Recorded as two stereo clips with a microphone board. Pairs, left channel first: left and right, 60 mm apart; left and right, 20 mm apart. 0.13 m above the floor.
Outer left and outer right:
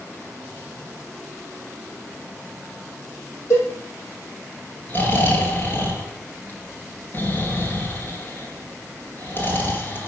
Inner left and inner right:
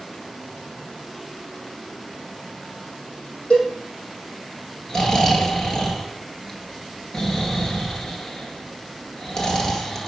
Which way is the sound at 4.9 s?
35° left (ahead or behind).